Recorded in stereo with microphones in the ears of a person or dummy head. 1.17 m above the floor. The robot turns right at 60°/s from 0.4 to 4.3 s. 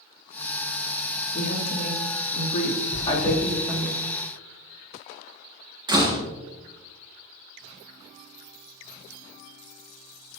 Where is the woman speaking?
50° left, 2.5 m; by 3.9 s 155° right, 2.5 m.